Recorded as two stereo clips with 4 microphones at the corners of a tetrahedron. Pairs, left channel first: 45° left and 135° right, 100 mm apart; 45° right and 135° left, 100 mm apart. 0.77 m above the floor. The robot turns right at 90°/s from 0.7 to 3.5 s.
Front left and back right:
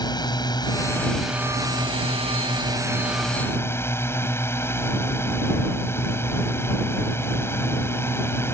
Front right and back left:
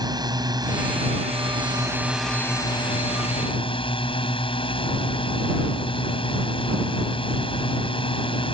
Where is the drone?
90° left; by 8.5 s 20° right.